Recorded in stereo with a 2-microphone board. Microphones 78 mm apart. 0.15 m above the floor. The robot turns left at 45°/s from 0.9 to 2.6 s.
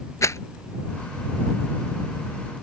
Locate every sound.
0.2 s a rattle: 40° left (ahead or behind)